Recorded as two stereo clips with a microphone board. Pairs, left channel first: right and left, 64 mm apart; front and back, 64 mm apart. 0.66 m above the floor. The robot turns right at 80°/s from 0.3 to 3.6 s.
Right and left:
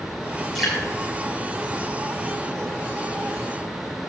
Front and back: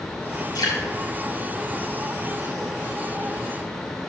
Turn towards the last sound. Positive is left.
turn(degrees=-125)